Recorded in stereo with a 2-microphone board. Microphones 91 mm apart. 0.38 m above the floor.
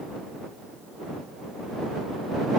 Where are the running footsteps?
No running footsteps in this recording.